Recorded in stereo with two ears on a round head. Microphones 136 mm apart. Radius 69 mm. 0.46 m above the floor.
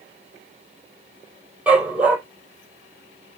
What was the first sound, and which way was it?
A dog barking, 10° right (ahead or behind).